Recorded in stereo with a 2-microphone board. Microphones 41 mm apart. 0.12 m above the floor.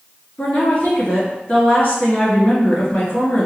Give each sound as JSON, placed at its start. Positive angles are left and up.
{"t": 0.4, "sound": "a woman speaking", "side_deg": 45, "distance_m": 1.4}